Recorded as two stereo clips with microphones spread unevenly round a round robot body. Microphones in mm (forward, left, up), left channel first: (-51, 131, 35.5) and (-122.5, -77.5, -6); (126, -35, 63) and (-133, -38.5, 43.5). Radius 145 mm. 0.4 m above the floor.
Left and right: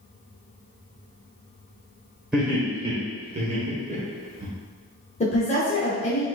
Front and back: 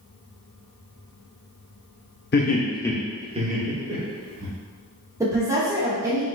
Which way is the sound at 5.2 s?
120° left.